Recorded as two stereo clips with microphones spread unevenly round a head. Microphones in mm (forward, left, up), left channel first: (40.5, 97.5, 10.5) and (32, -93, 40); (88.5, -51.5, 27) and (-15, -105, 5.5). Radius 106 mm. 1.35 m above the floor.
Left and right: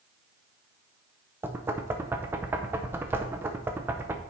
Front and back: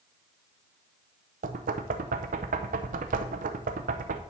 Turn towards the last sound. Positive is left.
turn(degrees=-170)